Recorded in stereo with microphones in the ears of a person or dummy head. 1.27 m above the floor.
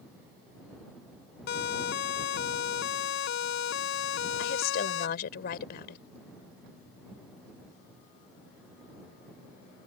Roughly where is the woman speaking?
Left.